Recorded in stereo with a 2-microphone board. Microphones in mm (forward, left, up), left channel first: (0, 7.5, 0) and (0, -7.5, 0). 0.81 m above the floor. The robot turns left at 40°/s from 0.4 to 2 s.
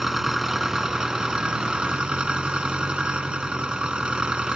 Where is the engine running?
30° right; by 4.5 s 90° right.